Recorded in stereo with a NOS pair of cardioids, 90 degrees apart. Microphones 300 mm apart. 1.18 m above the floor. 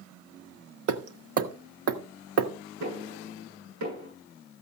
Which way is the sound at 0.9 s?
50° right.